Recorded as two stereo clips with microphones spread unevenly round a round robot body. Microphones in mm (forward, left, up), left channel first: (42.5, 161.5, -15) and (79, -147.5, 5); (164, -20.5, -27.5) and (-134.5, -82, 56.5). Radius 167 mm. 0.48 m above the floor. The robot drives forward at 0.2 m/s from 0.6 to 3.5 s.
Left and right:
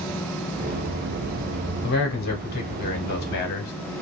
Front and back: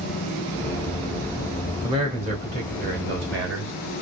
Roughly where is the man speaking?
Left.